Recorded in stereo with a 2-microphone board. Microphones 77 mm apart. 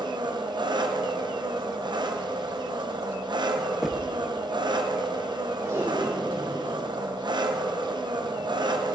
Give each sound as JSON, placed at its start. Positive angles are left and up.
{"t": 0.0, "sound": "an engine running", "side_deg": -85, "distance_m": 1.0}
{"t": 3.8, "sound": "knocking", "side_deg": -5, "distance_m": 0.7}
{"t": 5.6, "sound": "tape being pulled", "side_deg": -50, "distance_m": 5.0}